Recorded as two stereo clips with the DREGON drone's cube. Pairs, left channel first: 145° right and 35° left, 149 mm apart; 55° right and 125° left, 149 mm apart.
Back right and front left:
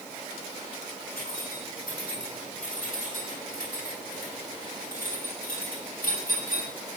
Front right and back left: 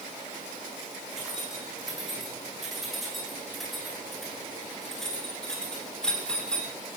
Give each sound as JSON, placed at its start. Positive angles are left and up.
{"t": 1.1, "sound": "keys jangling", "azimuth_deg": -150, "distance_m": 7.5}